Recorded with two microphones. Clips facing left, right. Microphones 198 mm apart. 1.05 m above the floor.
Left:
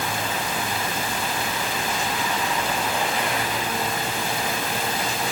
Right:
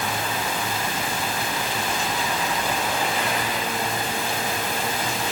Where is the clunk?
I don't hear a clunk.